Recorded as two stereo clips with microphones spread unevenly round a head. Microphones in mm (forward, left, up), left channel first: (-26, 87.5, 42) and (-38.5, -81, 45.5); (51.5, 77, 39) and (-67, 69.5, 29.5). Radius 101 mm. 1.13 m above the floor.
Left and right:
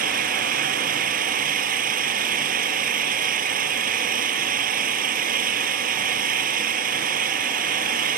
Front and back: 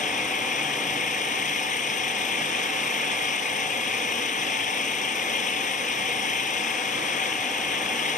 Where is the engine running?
45° right.